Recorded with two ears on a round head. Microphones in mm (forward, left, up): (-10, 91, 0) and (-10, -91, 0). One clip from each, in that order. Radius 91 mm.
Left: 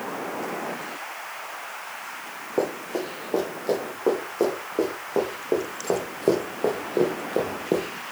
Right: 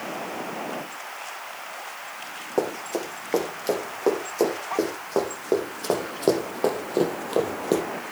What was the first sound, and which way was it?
Running footsteps, 60° right (ahead or behind).